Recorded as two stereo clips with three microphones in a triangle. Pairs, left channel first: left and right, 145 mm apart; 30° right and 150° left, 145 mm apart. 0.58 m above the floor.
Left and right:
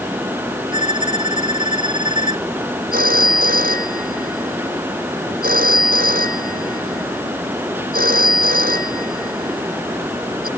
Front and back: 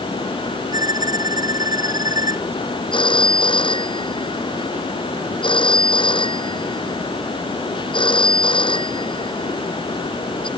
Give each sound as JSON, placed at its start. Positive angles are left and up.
{"t": 0.7, "sound": "a violin", "azimuth_deg": -145}
{"t": 2.9, "sound": "a phone ringing", "azimuth_deg": -85}